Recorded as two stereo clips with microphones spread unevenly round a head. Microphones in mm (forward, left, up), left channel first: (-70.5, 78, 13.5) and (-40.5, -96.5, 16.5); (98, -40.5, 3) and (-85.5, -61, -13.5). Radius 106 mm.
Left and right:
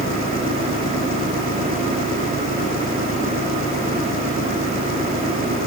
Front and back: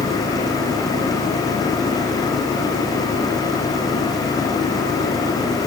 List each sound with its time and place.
0.0 s an engine running: 95° left